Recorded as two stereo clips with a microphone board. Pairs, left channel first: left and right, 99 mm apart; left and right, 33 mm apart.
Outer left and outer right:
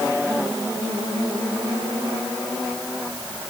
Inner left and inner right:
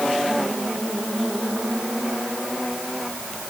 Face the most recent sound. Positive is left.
No sound to turn to.